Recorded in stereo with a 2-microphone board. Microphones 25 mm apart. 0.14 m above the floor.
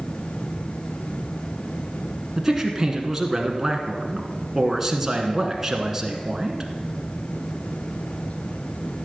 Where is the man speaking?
15° right (ahead or behind), 1.2 m.